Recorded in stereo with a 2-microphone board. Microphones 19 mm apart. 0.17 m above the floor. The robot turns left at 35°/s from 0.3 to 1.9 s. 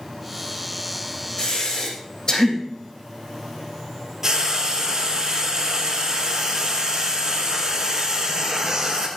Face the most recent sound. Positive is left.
turn(degrees=-25)  # may be behind; listen again after turning